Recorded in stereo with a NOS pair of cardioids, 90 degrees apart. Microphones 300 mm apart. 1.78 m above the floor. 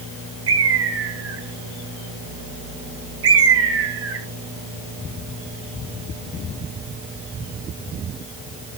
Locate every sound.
0.5 s a bird: 50° right, 1.5 m